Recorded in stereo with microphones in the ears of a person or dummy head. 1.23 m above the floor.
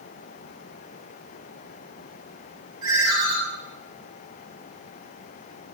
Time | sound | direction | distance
2.8 | a ringtone | 20° right (ahead or behind) | 3 m